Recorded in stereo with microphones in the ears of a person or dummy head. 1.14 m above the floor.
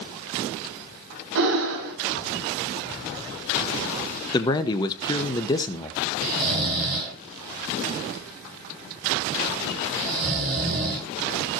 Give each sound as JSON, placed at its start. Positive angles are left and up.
{"t": 1.4, "sound": "breathing", "side_deg": -60, "distance_m": 4.0}
{"t": 4.3, "sound": "a man speaking", "side_deg": 25, "distance_m": 0.9}
{"t": 6.2, "sound": "snoring", "side_deg": -35, "distance_m": 9.5}